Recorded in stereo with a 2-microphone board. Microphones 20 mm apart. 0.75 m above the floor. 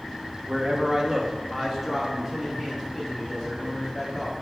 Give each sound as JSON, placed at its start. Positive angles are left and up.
{"t": 0.5, "sound": "a man speaking", "side_deg": -30, "distance_m": 0.5}